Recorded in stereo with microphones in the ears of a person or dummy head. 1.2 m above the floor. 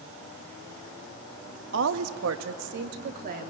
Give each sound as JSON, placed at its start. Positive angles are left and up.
{"t": 1.7, "sound": "a woman speaking", "side_deg": -60, "distance_m": 1.5}